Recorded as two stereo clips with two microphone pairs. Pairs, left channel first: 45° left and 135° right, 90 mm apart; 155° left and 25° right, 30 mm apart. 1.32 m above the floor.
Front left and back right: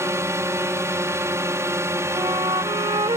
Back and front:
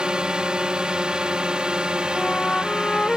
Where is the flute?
145° right.